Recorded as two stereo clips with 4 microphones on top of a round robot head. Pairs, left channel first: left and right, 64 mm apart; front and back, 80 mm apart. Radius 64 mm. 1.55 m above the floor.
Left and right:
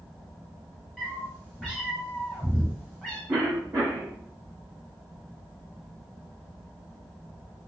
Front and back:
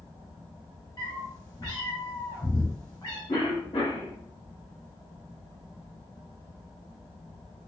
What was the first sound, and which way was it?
A cat meowing, 15° right.